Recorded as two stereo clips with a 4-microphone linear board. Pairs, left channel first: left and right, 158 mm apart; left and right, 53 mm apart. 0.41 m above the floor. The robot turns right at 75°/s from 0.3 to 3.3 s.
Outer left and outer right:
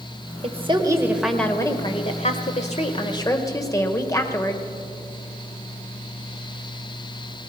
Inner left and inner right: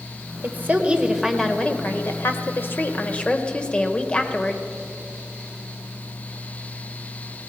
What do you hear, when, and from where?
0.4 s a woman speaking: 65° right, 1.4 m; by 4.6 s 150° left, 1.4 m